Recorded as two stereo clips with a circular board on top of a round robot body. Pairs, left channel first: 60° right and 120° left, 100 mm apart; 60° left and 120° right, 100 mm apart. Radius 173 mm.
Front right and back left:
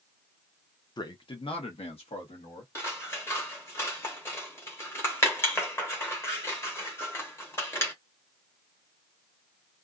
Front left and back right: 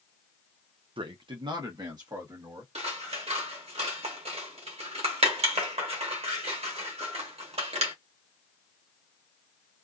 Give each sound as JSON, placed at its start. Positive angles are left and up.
{"t": 1.0, "sound": "a man speaking", "azimuth_deg": -100, "distance_m": 0.8}
{"t": 2.8, "sound": "scissors", "azimuth_deg": -125, "distance_m": 1.2}